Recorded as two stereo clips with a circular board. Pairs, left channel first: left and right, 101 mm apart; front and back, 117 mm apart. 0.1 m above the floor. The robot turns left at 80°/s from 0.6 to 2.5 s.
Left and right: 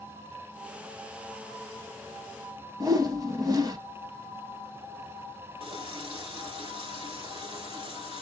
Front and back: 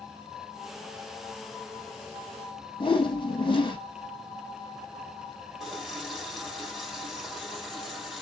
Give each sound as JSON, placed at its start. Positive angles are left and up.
{"t": 2.8, "sound": "a whoosh", "azimuth_deg": -45, "distance_m": 0.9}
{"t": 5.6, "sound": "a running tap", "azimuth_deg": -90, "distance_m": 2.5}